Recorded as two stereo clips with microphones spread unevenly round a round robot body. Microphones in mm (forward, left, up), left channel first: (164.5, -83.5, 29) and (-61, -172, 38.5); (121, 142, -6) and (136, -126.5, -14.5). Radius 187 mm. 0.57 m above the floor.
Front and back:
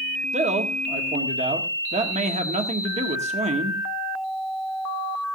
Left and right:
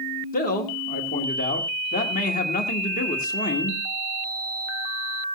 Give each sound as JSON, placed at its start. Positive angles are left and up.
{"t": 0.3, "sound": "a man speaking", "azimuth_deg": 145, "distance_m": 1.5}